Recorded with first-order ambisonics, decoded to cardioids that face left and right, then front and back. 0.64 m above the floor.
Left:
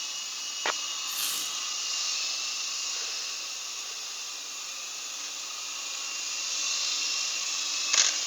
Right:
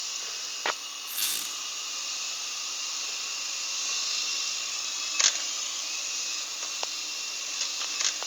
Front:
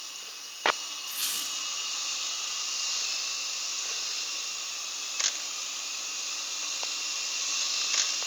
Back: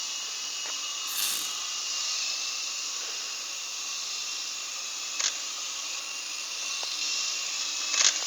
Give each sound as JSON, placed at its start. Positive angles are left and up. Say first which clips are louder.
{"t": 1.1, "sound": "a squeak", "louder": "right 4 dB, even", "azimuth_deg": -145, "distance_m": 2.5}